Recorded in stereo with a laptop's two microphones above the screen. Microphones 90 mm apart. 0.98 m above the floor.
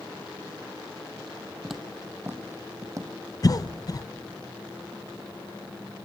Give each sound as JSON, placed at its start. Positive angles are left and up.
{"t": 1.6, "sound": "footsteps", "side_deg": 0, "distance_m": 1.7}
{"t": 3.4, "sound": "a cough", "side_deg": 40, "distance_m": 0.6}